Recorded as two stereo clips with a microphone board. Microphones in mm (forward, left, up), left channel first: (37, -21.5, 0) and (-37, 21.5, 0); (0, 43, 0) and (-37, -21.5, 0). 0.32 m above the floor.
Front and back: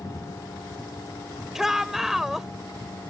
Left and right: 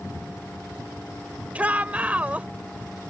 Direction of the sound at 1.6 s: 135° right.